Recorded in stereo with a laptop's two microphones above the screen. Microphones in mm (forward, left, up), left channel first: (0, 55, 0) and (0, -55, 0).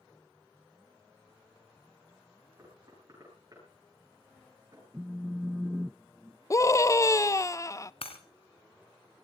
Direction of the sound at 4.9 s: 10° right (ahead or behind).